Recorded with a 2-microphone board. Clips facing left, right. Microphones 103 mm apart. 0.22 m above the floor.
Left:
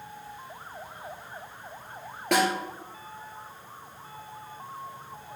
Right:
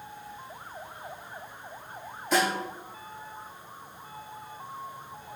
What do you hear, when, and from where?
2.3 s a snare drum: 75° left (ahead or behind), 1.6 m